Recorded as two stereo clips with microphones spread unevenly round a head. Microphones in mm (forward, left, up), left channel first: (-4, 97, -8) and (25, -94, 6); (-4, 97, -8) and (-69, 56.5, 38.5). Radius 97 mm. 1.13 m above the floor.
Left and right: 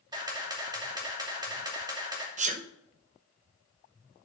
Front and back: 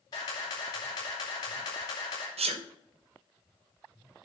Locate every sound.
0.1 s a camera shutter: 10° right, 2.5 m
2.4 s a sneeze: 135° right, 1.1 m